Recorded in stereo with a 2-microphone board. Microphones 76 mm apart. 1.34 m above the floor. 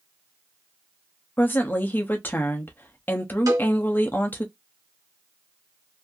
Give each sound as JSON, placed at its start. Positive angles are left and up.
{"t": 1.4, "sound": "a woman speaking", "side_deg": 25, "distance_m": 0.7}
{"t": 3.5, "sound": "a cowbell", "side_deg": -50, "distance_m": 1.8}